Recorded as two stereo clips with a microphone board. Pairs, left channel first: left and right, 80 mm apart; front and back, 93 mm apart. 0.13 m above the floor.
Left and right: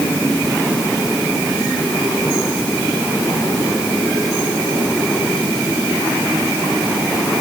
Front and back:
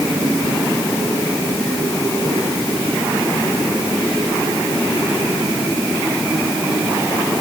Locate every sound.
Only background noise.